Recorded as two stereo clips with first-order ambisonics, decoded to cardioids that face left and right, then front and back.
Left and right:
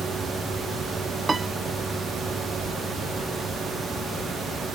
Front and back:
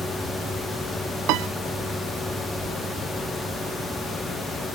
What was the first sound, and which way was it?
A piano, 170° right.